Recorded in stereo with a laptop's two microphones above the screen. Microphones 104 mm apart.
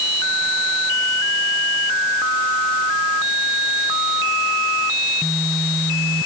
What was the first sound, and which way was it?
Only background noise.